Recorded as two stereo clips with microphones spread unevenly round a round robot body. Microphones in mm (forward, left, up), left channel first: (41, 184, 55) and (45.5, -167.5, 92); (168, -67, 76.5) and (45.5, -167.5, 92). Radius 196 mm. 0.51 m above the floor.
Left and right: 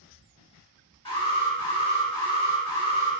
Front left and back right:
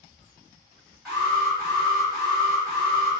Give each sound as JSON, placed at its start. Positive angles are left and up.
{"t": 1.1, "sound": "an alarm", "azimuth_deg": 115, "distance_m": 1.6}